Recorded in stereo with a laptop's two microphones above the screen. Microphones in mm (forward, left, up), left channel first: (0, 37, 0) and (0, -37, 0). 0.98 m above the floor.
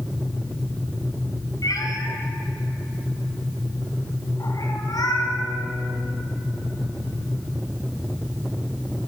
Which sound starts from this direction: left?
A cat meowing, at 1.6 s.